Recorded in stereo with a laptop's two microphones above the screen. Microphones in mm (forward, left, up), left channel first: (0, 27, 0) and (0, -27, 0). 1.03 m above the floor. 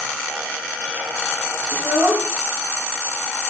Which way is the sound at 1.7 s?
70° right (ahead or behind).